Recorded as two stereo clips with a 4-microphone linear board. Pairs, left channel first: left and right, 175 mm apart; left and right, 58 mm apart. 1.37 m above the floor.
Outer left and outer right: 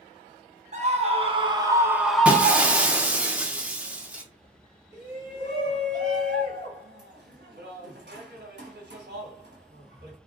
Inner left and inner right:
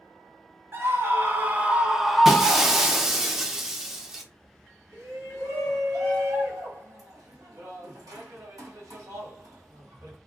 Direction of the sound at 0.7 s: 40° right (ahead or behind).